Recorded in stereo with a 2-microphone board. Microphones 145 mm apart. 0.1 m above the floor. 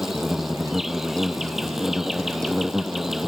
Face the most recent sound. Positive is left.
turn(degrees=-5)  # may be behind; listen again after turning